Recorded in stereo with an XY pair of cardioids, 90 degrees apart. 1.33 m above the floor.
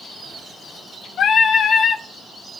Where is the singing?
70° left, 0.9 m.